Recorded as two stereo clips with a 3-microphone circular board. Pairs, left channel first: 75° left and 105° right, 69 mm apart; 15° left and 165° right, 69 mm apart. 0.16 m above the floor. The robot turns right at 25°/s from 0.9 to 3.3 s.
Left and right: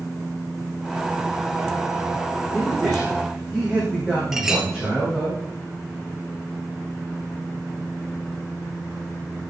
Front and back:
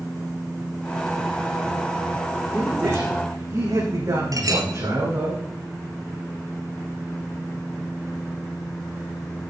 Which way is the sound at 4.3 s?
170° left.